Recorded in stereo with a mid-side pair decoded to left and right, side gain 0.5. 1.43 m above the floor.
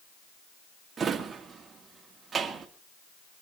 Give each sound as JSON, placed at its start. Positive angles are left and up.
{"t": 1.0, "sound": "a drawer", "azimuth_deg": -40, "distance_m": 1.8}